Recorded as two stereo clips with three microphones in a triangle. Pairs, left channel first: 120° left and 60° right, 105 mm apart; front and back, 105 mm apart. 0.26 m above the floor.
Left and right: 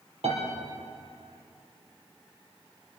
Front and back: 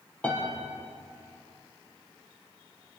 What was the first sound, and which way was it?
A piano, 75° right.